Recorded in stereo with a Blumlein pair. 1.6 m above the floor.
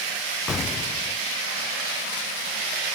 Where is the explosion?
20° left.